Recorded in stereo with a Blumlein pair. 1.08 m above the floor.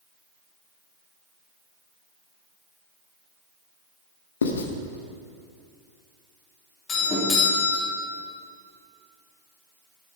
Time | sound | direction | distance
4.4 | writing | 70° left | 1.1 m
6.9 | a doorbell | 25° left | 3 m